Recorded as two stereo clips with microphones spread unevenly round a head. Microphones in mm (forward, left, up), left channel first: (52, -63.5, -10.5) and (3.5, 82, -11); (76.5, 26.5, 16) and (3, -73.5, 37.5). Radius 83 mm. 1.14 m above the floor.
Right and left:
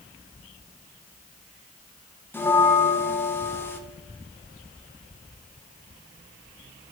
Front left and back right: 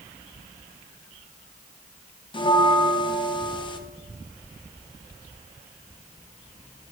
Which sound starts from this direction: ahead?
A bell, at 2.3 s.